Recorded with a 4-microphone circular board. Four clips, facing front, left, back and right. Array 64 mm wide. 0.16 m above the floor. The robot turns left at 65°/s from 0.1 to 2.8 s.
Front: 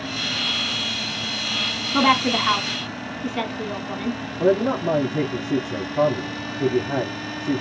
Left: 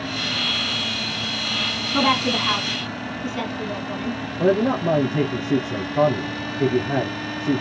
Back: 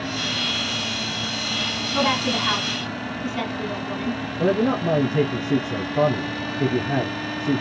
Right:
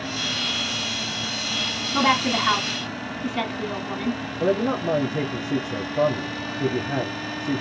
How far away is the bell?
I don't hear a bell.